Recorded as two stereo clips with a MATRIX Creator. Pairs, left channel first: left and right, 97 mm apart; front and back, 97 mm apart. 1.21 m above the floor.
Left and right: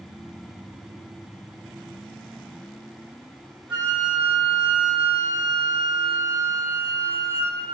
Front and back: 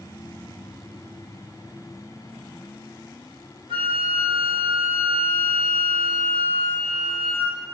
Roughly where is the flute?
Behind.